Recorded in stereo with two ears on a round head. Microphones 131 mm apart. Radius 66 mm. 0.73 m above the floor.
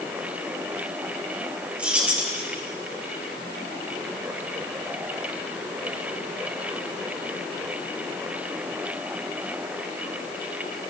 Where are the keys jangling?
10° right (ahead or behind), 2.5 m.